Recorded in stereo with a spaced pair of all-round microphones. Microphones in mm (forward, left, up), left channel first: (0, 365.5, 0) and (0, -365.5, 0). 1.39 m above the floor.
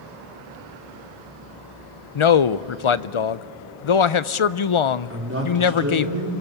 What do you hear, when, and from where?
2.1 s a man speaking: 45° left (ahead or behind), 0.5 m
5.1 s a man speaking: 20° right (ahead or behind), 5 m